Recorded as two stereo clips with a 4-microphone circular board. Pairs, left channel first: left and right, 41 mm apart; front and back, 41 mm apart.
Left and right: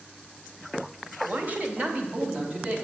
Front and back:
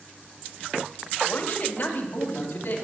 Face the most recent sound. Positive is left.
turn(degrees=-40)